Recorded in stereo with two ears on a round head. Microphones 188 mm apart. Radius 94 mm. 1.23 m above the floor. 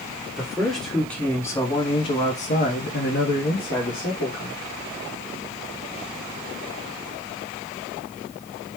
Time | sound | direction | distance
0.4 | a man speaking | centre (ahead or behind) | 1.3 m